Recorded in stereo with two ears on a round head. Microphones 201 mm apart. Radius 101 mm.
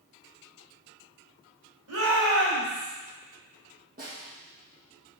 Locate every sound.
1.9 s a shout: 70° right (ahead or behind), 2.5 m; by 2.9 s 60° right (ahead or behind), 3.5 m
4.0 s a snare drum: 45° right (ahead or behind), 4 m